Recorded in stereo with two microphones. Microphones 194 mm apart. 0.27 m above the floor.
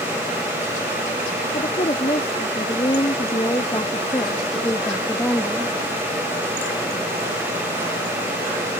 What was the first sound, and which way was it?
A woman speaking, 35° left (ahead or behind).